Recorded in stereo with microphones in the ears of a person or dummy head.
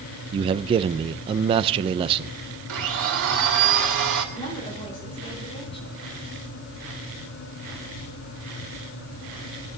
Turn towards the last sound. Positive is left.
turn(degrees=25)  # may be behind; listen again after turning